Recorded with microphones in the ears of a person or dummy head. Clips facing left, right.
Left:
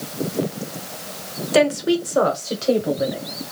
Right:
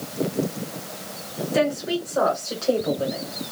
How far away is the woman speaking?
About 1.0 m.